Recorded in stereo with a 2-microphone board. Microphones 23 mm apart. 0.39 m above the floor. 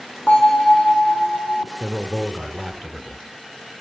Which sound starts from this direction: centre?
A man speaking, at 1.8 s.